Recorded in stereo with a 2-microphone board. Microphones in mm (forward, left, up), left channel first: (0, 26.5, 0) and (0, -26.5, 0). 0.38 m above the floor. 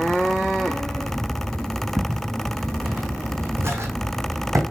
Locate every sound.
2.0 s footsteps: 15° right (ahead or behind), 1.6 m; by 4.6 s 75° right (ahead or behind), 1.0 m